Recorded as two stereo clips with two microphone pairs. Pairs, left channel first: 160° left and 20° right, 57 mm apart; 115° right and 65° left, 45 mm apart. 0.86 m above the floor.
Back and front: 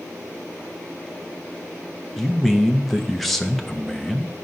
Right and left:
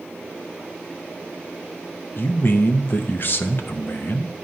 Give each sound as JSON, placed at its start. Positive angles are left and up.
{"t": 2.2, "sound": "a man speaking", "azimuth_deg": -115, "distance_m": 0.6}